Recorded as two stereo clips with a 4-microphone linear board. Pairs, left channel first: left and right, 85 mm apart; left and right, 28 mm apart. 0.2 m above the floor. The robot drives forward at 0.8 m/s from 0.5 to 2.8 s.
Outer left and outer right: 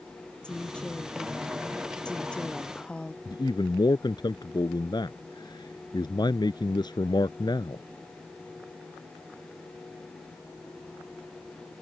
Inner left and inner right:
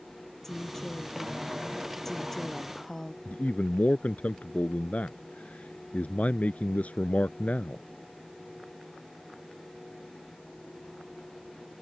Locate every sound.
0.4 s a woman speaking: 10° left (ahead or behind); by 3.1 s 15° left (ahead or behind)
3.2 s a man speaking: 55° left (ahead or behind)